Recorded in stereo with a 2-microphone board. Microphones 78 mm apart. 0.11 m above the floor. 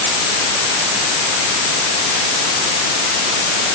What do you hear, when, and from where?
Only background noise.